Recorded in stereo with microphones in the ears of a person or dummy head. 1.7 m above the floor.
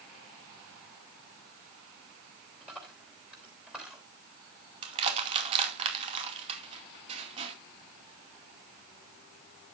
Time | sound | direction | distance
2.6 | a dropped coin | 10° right (ahead or behind) | 3 m
4.8 | crushing | 30° right (ahead or behind) | 2 m